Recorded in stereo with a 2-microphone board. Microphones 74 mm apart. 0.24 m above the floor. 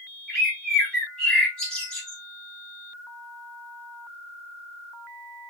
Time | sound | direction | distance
0.3 | a bird | 10° left (ahead or behind) | 1.4 m